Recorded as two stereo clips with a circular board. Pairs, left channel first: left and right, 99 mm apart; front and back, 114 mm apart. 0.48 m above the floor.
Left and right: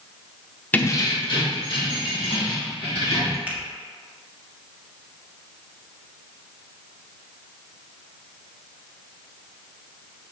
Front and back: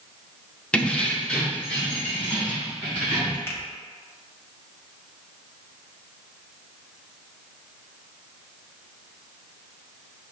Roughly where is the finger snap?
Ahead right.